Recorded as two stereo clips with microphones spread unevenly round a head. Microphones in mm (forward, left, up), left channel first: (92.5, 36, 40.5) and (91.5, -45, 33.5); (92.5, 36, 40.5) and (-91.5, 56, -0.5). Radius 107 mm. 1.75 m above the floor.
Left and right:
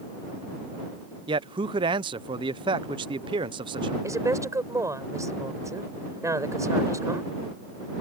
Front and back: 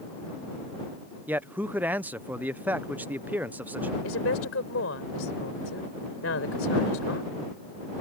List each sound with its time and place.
1.3 s a man speaking: 95° right
4.0 s a woman speaking: 40° right